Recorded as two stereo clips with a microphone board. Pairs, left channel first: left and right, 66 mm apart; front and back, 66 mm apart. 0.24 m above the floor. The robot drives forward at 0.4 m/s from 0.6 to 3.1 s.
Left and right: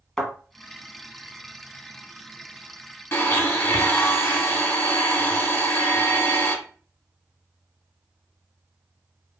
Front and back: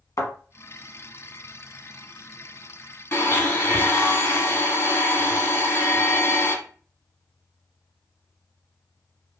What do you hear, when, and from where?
0.2 s a thud: 10° left, 1.0 m
3.1 s a blender: 45° left, 0.8 m